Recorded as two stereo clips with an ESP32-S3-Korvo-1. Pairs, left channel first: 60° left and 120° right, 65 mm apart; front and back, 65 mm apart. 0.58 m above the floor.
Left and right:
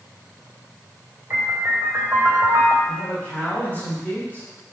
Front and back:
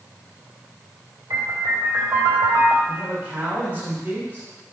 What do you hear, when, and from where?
1.3 s a piano: 170° right, 2.5 m
2.8 s a man speaking: 120° left, 2.5 m